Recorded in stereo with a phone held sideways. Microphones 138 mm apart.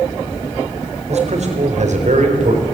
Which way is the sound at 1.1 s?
55° right (ahead or behind).